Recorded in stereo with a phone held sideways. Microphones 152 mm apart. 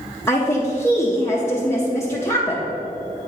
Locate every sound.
0.3 s a woman speaking: 15° left (ahead or behind), 0.7 m